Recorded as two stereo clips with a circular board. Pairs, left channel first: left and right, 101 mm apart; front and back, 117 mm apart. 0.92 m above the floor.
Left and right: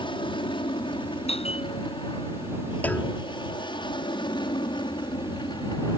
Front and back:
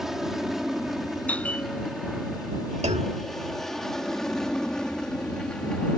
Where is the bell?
80° left.